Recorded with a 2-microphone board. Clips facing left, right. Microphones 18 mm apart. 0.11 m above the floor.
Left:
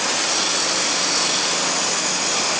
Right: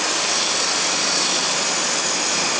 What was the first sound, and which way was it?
Only background noise.